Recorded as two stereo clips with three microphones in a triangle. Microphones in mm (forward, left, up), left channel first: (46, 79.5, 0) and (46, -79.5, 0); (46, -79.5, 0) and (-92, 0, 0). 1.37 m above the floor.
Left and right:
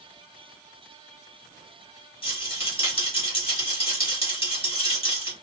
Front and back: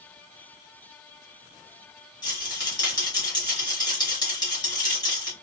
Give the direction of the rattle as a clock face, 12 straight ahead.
11 o'clock.